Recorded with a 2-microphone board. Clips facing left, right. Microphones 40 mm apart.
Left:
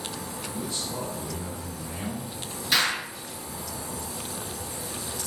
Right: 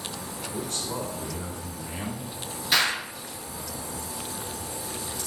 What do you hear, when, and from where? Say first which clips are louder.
0.5 s a man speaking: right 2 dB; 60° right (ahead or behind), 4 m
2.7 s an explosion: right 1 dB; 5° right (ahead or behind), 5.5 m